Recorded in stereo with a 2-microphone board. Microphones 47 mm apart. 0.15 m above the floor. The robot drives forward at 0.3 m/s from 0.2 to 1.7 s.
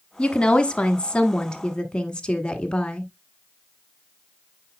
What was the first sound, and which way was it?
A woman speaking, 20° left (ahead or behind).